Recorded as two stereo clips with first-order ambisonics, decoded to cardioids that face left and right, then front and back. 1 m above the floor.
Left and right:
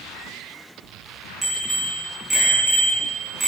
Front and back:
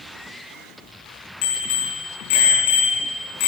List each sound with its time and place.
1.4 s a bicycle bell: 15° right, 7 m